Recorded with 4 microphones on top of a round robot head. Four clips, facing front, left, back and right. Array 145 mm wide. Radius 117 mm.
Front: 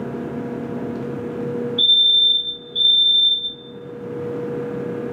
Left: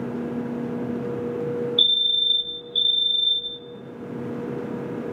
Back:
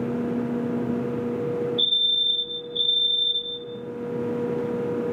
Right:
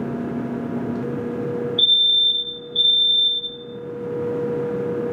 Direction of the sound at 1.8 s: 70° left.